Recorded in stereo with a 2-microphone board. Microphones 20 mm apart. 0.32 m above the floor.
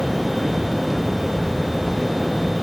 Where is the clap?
No clap in this recording.